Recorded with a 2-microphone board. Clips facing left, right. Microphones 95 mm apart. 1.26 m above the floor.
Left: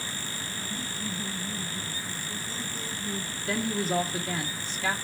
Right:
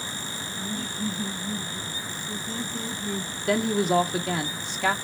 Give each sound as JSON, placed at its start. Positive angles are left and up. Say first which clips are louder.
{"t": 0.5, "sound": "laughter", "louder": "right 7 dB", "side_deg": -90, "distance_m": 5.0}
{"t": 3.5, "sound": "a woman speaking", "louder": "right 6 dB", "side_deg": -70, "distance_m": 1.4}